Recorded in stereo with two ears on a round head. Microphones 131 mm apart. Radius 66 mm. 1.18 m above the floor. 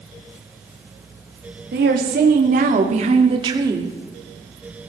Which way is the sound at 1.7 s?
80° right.